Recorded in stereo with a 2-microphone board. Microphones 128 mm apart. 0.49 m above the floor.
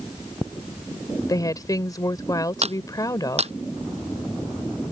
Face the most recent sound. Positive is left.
turn(degrees=-55)  # may be behind; listen again after turning